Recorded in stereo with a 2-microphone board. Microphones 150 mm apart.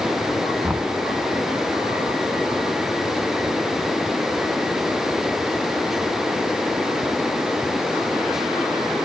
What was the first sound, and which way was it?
Knocking, 10° right (ahead or behind).